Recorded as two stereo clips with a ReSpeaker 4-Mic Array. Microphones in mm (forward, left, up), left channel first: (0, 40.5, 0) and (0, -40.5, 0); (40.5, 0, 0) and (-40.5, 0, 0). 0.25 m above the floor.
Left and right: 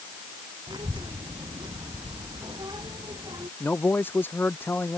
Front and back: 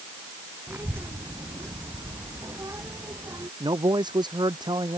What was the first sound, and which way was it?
A child speaking, 115° right.